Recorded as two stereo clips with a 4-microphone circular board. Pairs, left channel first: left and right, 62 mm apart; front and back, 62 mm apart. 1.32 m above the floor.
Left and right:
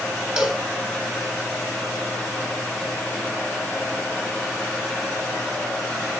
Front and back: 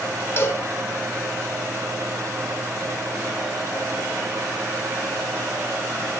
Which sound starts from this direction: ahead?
A cowbell, at 0.4 s.